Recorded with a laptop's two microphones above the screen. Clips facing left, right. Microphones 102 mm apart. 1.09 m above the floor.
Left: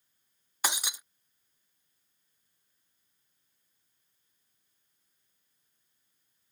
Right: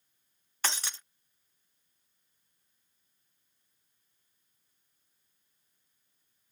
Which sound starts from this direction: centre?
Breaking glass, at 0.6 s.